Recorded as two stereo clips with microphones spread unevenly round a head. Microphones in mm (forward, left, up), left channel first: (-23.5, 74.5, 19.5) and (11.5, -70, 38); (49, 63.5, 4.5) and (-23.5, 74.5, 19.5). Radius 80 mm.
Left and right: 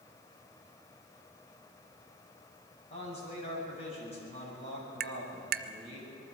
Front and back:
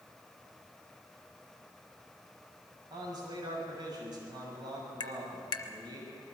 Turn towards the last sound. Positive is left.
turn(degrees=-45)